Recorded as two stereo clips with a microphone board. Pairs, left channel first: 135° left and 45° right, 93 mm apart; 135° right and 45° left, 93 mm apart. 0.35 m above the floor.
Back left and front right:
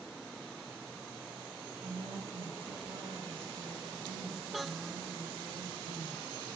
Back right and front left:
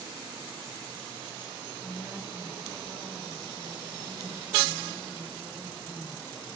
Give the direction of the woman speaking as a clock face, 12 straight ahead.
2 o'clock.